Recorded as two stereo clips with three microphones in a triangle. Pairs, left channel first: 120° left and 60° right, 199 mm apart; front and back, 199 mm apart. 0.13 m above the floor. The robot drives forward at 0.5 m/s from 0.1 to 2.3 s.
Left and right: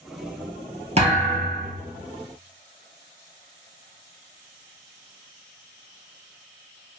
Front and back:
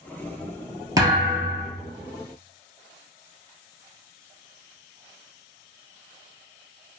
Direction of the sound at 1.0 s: 110° right.